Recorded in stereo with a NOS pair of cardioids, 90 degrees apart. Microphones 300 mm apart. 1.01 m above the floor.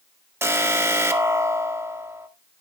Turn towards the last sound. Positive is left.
turn(degrees=-10)